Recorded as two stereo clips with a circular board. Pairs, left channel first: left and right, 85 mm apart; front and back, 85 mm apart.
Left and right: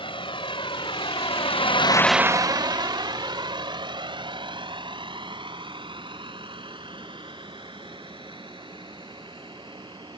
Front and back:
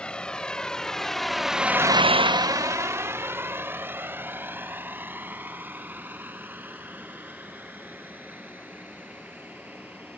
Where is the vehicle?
80° left; by 10.2 s 110° right.